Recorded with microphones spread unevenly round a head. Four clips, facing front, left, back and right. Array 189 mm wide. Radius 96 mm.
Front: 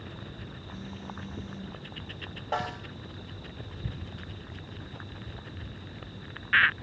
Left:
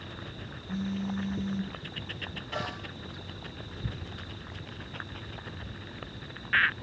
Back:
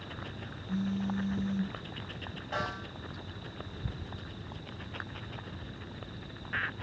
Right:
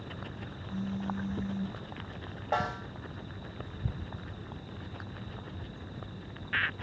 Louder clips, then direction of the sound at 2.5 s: Right 6 dB, front 4 dB; 50° right.